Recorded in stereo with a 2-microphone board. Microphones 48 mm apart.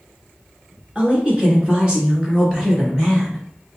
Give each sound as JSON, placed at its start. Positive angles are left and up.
{"t": 0.9, "sound": "a woman speaking", "side_deg": -25, "distance_m": 1.7}